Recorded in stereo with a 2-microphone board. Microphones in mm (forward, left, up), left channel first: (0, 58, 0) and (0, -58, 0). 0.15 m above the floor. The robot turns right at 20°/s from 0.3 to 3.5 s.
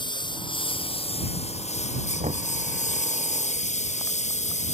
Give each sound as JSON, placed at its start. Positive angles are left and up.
{"t": 0.0, "sound": "a lawn mower", "side_deg": 40}
{"t": 2.2, "sound": "knocking", "side_deg": -70}